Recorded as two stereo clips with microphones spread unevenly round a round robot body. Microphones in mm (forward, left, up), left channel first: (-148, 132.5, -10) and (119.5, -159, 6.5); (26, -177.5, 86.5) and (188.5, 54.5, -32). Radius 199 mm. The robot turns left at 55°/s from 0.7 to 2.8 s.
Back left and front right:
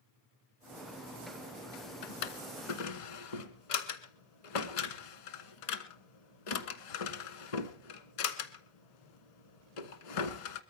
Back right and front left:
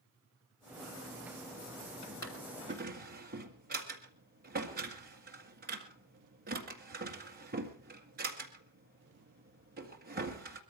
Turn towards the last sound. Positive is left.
turn(degrees=120)